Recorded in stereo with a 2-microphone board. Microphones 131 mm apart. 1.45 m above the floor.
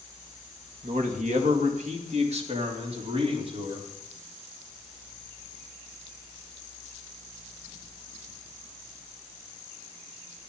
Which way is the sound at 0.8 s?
80° right.